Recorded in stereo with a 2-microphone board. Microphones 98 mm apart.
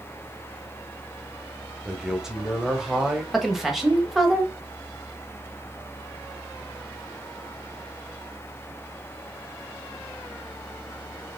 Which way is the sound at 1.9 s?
5° right (ahead or behind).